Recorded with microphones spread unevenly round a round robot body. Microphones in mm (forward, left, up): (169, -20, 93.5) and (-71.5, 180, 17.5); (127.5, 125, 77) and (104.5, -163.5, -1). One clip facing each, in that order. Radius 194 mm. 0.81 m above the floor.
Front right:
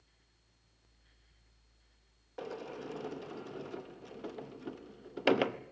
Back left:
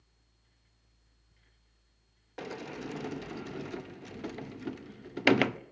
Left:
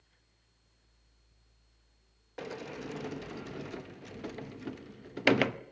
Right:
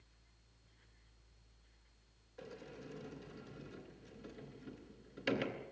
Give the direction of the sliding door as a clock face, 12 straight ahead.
9 o'clock.